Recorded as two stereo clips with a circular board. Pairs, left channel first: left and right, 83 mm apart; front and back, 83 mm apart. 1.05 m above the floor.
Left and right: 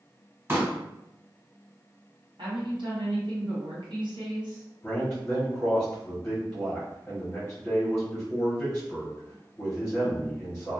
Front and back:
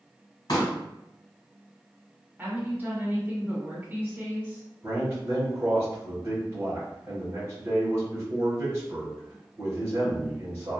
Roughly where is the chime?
No chime in this recording.